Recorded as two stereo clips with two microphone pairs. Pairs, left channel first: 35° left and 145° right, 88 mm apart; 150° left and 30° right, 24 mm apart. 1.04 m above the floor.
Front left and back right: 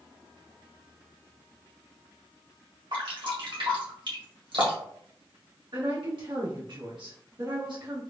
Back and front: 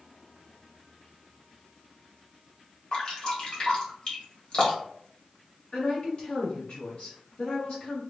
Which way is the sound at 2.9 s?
160° right.